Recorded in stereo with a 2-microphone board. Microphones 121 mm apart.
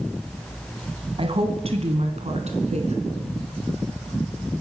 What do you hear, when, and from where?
1.2 s a woman speaking: 50° right (ahead or behind), 2 m; by 3.3 s 70° right (ahead or behind), 3.5 m